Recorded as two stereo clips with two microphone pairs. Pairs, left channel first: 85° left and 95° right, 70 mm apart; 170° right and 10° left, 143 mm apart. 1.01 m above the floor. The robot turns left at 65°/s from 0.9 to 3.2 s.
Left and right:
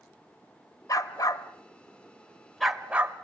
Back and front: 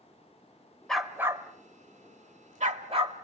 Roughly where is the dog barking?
Left.